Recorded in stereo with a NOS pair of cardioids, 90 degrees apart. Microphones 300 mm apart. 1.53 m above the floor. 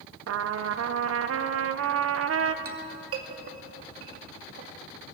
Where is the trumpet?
55° right, 1.3 m.